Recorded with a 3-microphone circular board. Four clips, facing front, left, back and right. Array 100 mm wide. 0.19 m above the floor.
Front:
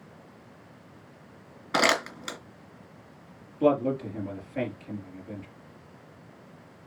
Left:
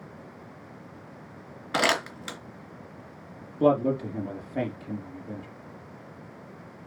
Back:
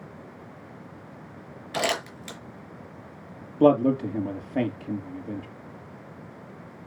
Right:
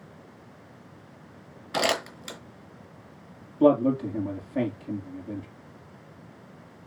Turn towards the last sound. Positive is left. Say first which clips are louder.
# right 2 dB, back 5 dB
turn(degrees=180)